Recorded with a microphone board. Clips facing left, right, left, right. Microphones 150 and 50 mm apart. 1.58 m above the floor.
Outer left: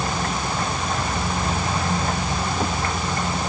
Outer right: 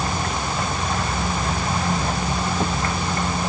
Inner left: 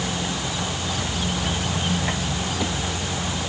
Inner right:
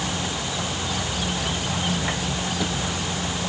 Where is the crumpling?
I don't hear crumpling.